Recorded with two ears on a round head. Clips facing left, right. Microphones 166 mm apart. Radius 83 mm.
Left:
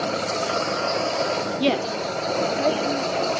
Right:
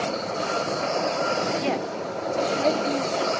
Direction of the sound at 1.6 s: 50° left (ahead or behind).